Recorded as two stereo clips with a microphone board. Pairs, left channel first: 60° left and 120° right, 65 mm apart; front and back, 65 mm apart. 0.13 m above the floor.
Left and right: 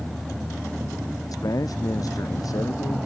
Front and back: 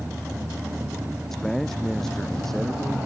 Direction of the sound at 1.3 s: 85° left.